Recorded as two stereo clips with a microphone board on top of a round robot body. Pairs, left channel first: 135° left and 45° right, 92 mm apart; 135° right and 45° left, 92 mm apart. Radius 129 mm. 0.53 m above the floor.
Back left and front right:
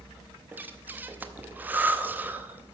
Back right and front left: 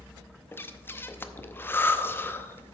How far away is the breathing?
About 0.9 m.